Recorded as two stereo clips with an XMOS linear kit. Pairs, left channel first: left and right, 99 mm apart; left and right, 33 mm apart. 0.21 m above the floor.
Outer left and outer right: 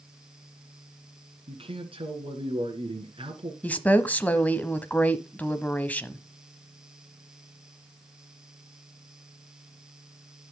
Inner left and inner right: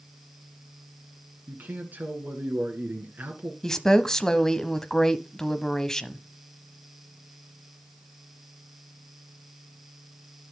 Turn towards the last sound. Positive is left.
turn(degrees=15)  # may be behind; listen again after turning